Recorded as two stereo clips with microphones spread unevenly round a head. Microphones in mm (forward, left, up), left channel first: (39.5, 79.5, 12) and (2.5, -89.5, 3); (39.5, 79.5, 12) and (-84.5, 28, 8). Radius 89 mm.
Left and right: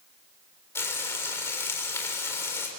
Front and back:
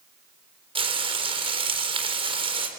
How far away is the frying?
About 3.5 m.